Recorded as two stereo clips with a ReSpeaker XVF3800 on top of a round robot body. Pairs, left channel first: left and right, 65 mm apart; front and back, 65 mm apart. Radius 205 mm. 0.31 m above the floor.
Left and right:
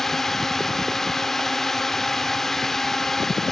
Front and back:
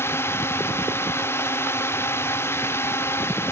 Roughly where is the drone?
Ahead.